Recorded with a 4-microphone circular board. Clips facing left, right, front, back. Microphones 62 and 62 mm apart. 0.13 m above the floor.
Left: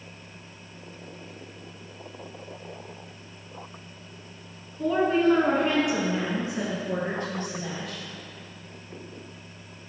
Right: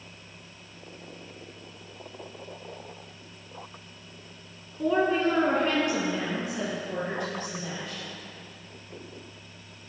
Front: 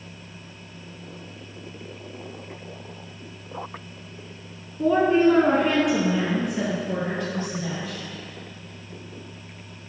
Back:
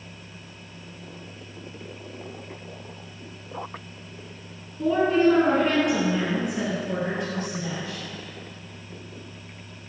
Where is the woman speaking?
20° right, 1.4 m; by 8.0 s 120° left, 2 m.